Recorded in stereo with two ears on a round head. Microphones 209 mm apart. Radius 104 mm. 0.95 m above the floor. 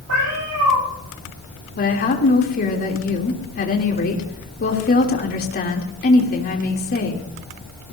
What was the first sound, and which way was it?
A cat meowing, 75° right (ahead or behind).